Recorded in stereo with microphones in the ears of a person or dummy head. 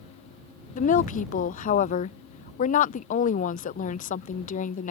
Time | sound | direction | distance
0.8 | a woman speaking | 40° left (ahead or behind) | ?